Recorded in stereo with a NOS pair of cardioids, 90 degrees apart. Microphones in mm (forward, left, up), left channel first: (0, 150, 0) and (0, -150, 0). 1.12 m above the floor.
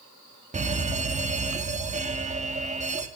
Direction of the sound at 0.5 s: 25° right.